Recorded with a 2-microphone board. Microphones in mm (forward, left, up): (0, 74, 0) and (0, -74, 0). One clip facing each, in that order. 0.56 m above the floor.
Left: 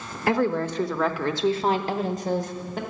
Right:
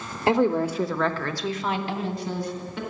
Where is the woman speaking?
25° right (ahead or behind), 0.9 m; by 2.8 s 45° left (ahead or behind), 1.5 m.